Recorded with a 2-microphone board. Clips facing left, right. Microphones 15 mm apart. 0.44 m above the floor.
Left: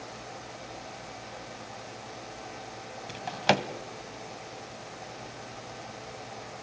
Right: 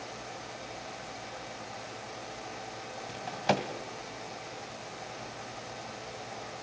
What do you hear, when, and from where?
3.1 s a drawer: 55° left (ahead or behind), 1.4 m